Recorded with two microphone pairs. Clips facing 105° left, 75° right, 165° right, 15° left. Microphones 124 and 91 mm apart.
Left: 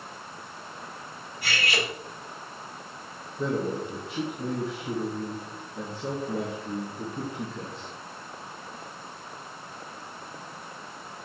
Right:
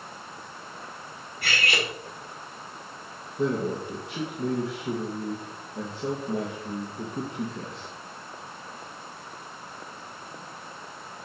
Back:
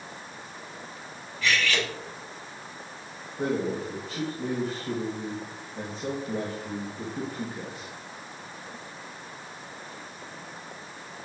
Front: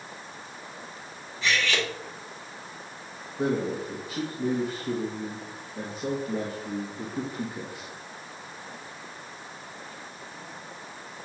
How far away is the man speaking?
About 1.5 m.